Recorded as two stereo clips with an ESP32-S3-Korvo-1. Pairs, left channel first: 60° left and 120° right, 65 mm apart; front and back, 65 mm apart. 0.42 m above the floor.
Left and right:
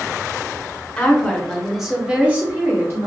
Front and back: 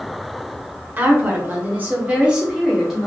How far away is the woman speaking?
About 1.2 m.